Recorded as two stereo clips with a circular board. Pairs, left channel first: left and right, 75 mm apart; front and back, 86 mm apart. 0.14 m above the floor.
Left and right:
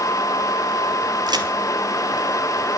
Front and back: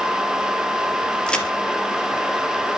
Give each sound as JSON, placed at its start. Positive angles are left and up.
{"t": 1.3, "sound": "a crack", "azimuth_deg": -80, "distance_m": 3.5}